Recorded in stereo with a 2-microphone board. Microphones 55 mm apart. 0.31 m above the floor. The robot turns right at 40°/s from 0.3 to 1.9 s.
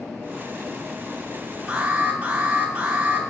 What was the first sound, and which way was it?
An alarm, 15° right (ahead or behind).